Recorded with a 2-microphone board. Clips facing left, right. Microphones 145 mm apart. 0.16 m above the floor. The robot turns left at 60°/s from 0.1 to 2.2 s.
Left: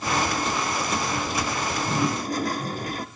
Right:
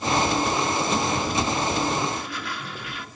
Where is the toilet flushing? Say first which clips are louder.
Even; 85° left, 0.9 m; by 3.0 s 55° left, 0.9 m.